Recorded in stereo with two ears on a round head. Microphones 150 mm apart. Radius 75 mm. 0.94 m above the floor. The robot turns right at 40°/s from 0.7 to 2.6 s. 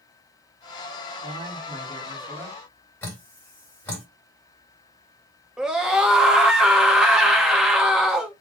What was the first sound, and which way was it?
A man speaking, 55° right.